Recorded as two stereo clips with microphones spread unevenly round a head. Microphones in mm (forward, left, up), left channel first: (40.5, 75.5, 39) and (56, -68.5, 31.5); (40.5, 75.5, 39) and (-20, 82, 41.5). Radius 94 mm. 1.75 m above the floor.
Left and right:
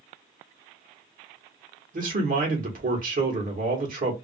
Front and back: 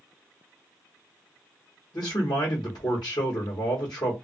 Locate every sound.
1.9 s a man speaking: 55° right, 1.1 m